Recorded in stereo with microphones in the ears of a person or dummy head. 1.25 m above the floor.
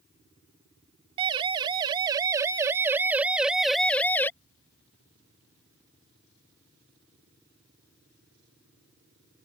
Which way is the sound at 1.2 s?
30° right (ahead or behind).